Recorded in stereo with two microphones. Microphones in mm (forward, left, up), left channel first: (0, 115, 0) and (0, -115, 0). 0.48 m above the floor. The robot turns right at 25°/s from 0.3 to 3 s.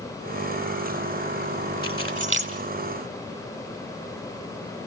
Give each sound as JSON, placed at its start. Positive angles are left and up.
{"t": 1.8, "sound": "keys jangling", "side_deg": -70, "distance_m": 4.0}